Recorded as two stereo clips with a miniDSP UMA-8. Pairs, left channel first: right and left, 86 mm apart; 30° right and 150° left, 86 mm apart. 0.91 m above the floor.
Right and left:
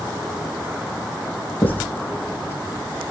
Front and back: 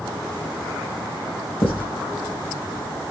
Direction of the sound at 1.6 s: 25° right.